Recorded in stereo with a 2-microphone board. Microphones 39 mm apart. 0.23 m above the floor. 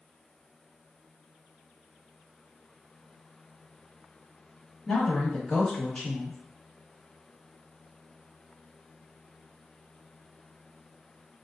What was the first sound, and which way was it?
A woman speaking, 5° left (ahead or behind).